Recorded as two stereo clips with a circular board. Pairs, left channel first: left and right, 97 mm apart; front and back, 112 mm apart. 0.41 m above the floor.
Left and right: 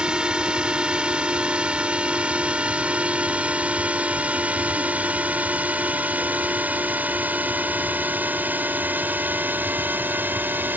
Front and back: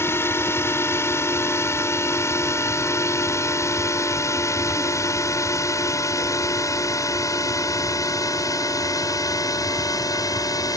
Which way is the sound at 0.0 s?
25° right.